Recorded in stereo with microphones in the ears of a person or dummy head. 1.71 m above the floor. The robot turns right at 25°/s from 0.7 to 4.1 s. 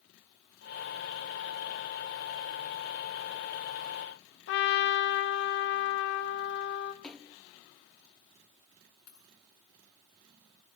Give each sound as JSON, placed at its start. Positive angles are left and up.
{"t": 4.5, "sound": "a trumpet", "side_deg": 60, "distance_m": 1.5}
{"t": 7.0, "sound": "a splash", "side_deg": 5, "distance_m": 0.7}
{"t": 9.1, "sound": "a dropped coin", "side_deg": 75, "distance_m": 7.0}